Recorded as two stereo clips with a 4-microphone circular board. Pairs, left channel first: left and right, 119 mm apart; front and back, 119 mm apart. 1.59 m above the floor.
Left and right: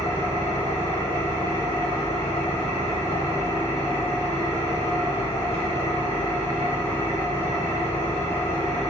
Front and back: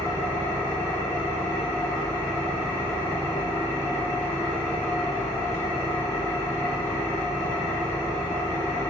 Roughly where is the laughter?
I don't hear laughter.